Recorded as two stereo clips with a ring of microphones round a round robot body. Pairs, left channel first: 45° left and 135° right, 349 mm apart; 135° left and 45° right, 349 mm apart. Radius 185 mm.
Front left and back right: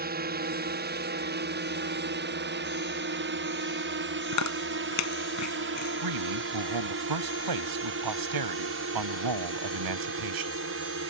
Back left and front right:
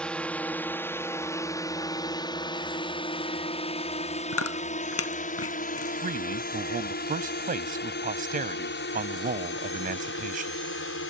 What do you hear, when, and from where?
0.0 s a drone: 140° right; by 11.1 s straight behind
4.3 s chewing: 85° left
6.0 s a man speaking: 110° right